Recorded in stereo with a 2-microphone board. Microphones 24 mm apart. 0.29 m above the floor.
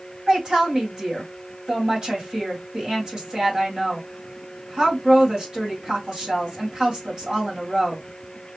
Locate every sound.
0.3 s a woman speaking: 35° right (ahead or behind), 2 m